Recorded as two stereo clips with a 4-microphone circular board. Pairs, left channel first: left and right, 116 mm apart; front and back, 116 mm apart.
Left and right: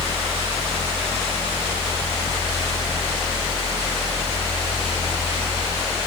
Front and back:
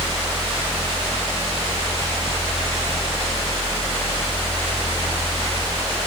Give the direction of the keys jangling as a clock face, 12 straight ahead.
I don't hear keys jangling.